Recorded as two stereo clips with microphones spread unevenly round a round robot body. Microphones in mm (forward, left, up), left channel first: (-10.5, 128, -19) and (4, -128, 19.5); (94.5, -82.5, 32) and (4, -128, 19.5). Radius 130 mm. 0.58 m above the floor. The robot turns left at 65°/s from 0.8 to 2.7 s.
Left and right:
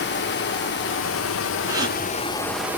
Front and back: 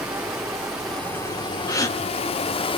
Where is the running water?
125° left, 1.0 m; by 2.8 s straight ahead, 1.0 m.